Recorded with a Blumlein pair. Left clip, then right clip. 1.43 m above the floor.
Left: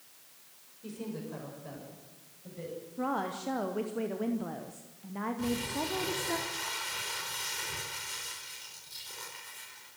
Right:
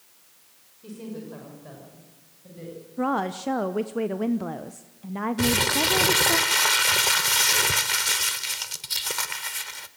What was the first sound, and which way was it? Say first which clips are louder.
A woman speaking: right 3 dB; straight ahead.